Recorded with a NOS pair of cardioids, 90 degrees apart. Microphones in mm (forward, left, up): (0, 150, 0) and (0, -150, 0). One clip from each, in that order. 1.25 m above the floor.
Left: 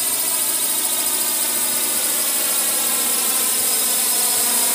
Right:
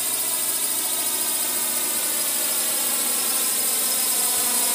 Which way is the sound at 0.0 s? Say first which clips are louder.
Left 4 dB; 30° left.